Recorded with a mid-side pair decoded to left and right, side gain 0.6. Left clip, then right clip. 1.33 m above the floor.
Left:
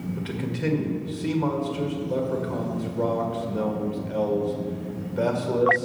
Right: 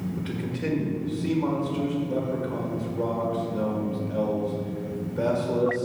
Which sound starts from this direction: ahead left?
A man speaking, at 0.2 s.